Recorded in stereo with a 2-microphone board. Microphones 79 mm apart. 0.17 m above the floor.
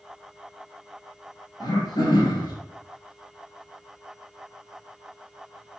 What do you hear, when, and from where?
1.6 s throat clearing: 65° left (ahead or behind), 2.5 m